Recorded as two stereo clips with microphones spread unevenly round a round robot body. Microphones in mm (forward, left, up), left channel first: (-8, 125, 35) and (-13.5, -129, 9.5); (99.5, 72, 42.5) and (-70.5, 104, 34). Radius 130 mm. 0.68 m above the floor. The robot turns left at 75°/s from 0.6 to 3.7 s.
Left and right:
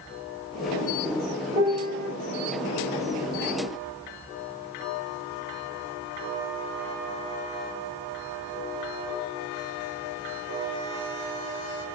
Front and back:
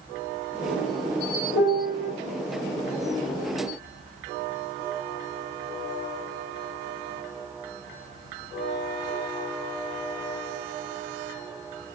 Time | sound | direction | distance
1.5 | a piano | 20° right | 1.5 m